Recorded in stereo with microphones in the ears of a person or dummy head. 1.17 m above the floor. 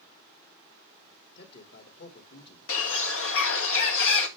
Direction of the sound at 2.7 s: 80° left.